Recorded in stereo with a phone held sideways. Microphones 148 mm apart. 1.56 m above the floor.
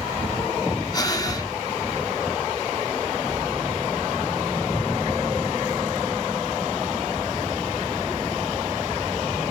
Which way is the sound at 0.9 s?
25° left (ahead or behind).